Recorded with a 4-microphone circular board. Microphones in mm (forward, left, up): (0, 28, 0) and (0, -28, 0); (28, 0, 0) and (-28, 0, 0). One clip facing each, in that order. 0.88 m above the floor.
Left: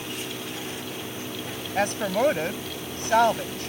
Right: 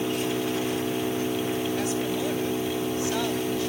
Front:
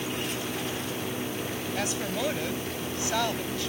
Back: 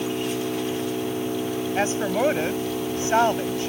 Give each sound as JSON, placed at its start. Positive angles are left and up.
{"t": 0.0, "sound": "an engine running", "azimuth_deg": -140}
{"t": 1.8, "sound": "a woman speaking", "azimuth_deg": 125}